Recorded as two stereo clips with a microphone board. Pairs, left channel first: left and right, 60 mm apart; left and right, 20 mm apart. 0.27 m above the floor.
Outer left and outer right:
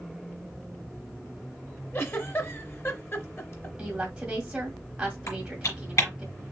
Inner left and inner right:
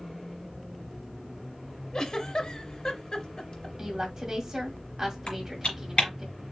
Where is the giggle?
40° left (ahead or behind), 1.1 m.